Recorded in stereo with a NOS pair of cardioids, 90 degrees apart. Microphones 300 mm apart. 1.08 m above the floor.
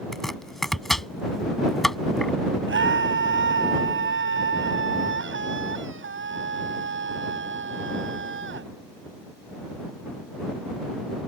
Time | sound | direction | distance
0.1 | chopping | straight ahead | ?
2.7 | a scream | 40° right | ?